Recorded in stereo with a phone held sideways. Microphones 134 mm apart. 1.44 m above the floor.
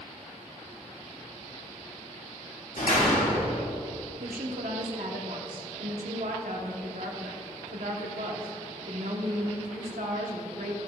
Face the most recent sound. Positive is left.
turn(degrees=-80)